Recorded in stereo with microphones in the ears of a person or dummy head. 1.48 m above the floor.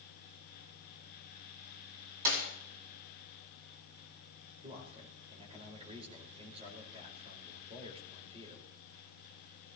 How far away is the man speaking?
About 4.5 m.